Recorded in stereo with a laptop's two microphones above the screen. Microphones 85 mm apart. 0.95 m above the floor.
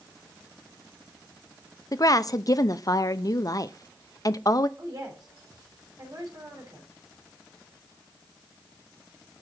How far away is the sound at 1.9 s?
About 0.6 m.